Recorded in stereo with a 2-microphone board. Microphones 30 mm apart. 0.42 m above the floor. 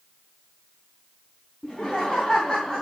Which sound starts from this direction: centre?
Laughter, at 1.6 s.